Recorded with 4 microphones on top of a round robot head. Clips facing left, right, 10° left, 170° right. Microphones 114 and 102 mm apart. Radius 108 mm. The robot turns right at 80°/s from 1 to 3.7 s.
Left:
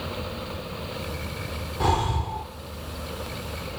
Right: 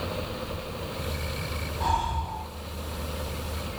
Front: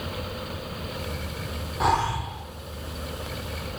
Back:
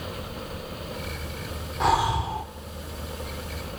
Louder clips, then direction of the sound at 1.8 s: Left 3 dB, back 1 dB; 95° left.